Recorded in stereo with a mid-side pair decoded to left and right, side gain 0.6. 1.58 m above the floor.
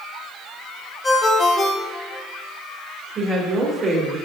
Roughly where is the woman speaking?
Ahead right.